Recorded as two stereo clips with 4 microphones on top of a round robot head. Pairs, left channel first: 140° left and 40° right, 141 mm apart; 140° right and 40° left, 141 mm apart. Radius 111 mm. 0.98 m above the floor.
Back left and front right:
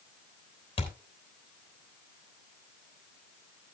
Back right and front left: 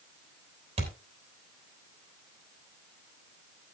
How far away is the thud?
About 3 m.